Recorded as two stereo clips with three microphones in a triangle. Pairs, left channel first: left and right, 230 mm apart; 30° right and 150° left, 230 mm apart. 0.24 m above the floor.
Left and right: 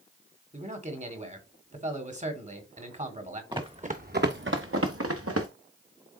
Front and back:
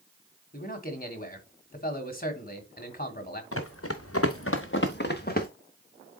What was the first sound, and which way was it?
A man speaking, 50° right.